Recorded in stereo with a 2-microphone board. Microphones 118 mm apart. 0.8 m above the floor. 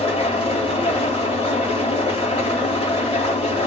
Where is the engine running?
50° left (ahead or behind), 1.2 m.